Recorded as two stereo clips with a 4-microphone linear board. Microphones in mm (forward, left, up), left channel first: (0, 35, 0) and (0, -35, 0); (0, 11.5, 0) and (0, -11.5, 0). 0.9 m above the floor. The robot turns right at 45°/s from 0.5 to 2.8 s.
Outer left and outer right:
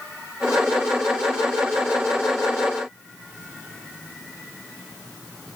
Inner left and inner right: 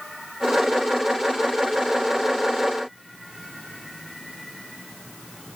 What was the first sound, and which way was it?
Only background noise.